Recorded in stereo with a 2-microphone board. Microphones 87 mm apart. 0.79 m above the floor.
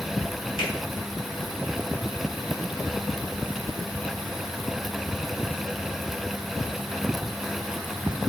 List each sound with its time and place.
0.6 s a finger snap: 80° left, 5 m